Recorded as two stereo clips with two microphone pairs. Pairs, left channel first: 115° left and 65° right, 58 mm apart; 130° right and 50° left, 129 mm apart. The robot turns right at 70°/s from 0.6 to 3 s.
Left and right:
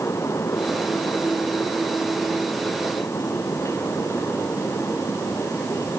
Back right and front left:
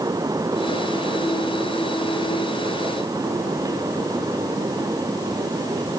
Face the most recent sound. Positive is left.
No sound to turn to.